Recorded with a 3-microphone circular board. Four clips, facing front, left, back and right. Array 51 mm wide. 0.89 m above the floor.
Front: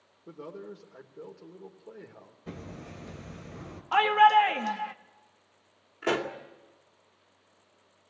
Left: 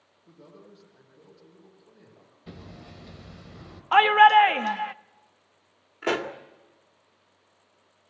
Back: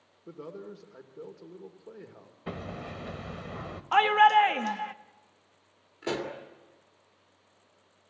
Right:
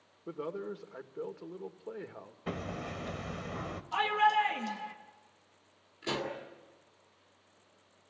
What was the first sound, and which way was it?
A man speaking, 90° right.